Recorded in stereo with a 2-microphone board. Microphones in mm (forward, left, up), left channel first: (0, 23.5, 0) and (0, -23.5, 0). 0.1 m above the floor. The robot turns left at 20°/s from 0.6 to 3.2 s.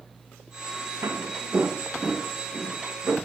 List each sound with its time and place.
1.0 s footsteps: 65° right (ahead or behind), 1.5 m; by 3.1 s 70° right (ahead or behind), 4.5 m